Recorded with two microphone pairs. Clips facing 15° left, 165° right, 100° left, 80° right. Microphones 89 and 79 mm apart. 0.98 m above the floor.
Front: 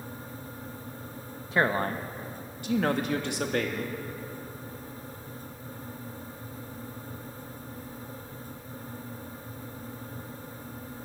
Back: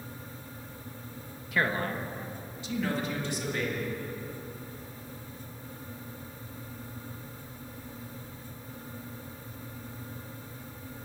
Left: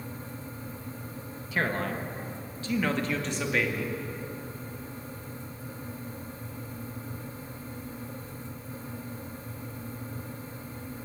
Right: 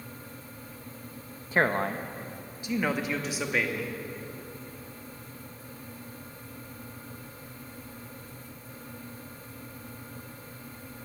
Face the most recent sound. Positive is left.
turn(degrees=10)